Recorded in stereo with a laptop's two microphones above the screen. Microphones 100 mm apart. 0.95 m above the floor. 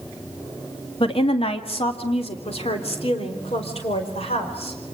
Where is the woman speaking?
65° left (ahead or behind), 1.8 m; by 4.9 s 80° left, 5.5 m.